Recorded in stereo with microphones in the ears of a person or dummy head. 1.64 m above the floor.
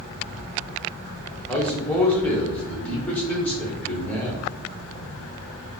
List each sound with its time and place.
1.5 s a man speaking: 10° left (ahead or behind), 1.0 m